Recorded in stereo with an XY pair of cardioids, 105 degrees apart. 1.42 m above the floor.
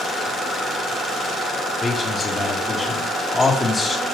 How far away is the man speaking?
About 3 m.